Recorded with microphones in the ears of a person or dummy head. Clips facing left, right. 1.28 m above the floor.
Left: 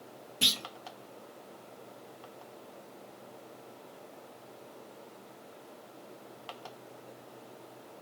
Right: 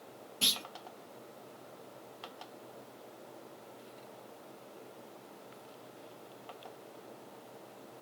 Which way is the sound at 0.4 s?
20° left (ahead or behind).